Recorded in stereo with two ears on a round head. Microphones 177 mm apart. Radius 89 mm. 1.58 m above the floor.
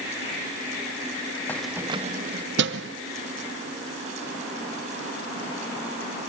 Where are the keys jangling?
10° left (ahead or behind), 0.7 m; by 3.0 s 70° right (ahead or behind), 1.1 m.